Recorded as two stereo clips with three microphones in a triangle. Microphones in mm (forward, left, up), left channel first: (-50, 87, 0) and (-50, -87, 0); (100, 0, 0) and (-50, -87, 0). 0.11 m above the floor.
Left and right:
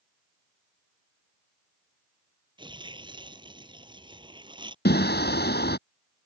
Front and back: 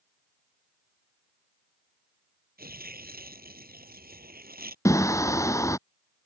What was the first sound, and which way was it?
Tearing paper, 150° right.